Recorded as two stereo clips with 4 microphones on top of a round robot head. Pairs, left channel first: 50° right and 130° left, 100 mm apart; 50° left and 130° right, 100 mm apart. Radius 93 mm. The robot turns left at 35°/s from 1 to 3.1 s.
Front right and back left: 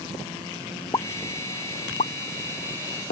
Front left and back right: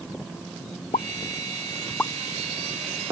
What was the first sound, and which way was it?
A pop, 10° left.